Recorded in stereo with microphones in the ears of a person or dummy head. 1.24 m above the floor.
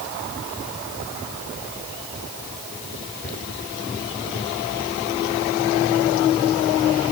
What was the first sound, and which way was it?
Only background noise.